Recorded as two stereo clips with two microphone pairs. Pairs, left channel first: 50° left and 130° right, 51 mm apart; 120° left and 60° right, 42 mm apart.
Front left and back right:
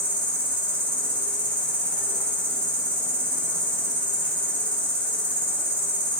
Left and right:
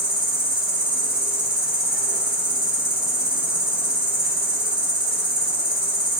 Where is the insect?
Straight ahead, 1.9 m.